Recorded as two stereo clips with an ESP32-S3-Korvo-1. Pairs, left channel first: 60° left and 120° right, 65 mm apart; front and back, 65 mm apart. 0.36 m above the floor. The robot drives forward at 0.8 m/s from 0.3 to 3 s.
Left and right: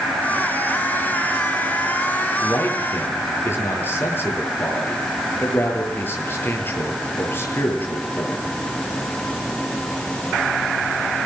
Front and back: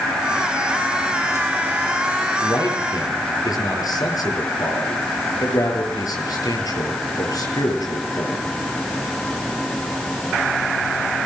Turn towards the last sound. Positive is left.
turn(degrees=5)